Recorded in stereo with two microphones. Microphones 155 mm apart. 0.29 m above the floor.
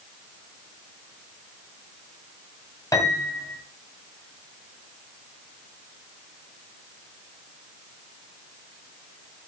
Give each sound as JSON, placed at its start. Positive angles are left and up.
{"t": 2.9, "sound": "a piano", "side_deg": 20, "distance_m": 2.0}